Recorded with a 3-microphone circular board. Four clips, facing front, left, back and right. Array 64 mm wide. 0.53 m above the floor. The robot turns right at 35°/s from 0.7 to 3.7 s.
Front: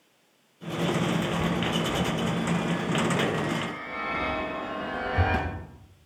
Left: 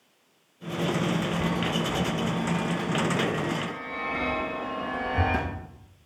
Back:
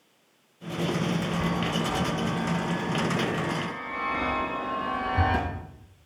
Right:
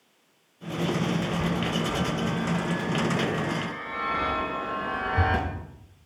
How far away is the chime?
About 3.5 m.